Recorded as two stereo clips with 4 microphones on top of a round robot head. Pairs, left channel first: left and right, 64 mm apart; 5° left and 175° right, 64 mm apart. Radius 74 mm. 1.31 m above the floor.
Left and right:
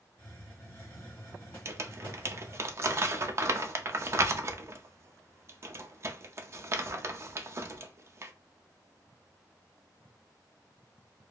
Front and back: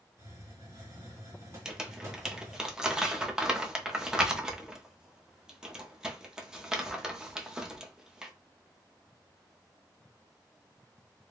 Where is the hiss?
155° left, 1.6 m.